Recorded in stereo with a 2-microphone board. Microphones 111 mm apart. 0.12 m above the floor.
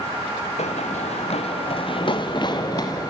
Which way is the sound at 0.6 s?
80° left.